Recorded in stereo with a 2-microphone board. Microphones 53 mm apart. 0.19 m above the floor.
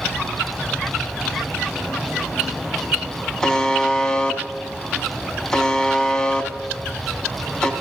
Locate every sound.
3.4 s a buzzer: 10° left (ahead or behind), 0.9 m